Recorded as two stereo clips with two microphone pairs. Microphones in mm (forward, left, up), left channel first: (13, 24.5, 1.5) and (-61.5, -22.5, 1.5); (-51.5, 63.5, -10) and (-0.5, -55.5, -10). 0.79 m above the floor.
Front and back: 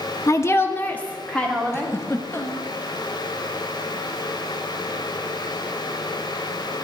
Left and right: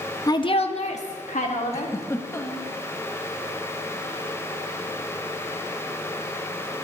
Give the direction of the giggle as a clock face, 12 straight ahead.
10 o'clock.